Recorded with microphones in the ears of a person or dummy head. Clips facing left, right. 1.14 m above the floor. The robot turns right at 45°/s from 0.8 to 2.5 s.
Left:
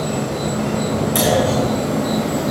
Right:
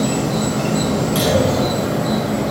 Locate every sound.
0.0 s an insect: 65° right, 1.8 m; by 2.5 s 10° left, 1.8 m
1.1 s a clunk: 155° left, 4 m; by 1.8 s 175° right, 4 m